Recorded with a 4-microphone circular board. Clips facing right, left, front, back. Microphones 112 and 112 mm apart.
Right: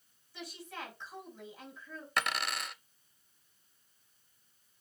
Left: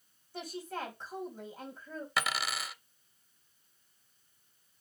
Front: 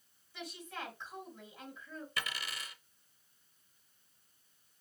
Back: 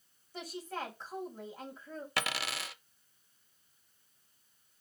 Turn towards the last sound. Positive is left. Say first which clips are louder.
# even, back 7 dB
turn(degrees=175)